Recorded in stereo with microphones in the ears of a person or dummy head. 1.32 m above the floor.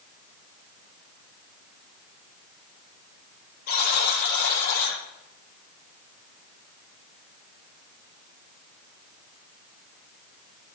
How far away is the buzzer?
About 7 m.